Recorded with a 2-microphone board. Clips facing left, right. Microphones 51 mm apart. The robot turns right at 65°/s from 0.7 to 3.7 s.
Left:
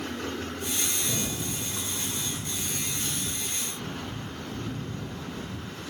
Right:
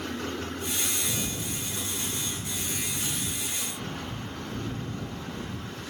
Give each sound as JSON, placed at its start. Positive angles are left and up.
{"t": 1.0, "sound": "a rattle", "azimuth_deg": 55, "distance_m": 1.6}